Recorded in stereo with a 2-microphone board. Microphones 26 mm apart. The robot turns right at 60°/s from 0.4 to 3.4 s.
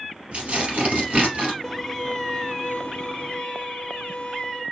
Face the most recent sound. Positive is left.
turn(degrees=105)